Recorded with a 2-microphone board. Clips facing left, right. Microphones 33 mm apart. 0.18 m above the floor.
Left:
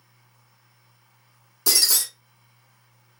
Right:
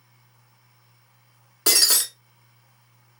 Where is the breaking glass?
50° right (ahead or behind), 0.7 m.